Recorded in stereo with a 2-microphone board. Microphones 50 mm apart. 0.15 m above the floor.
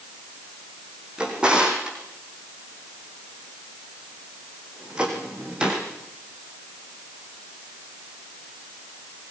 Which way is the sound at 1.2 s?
20° right (ahead or behind).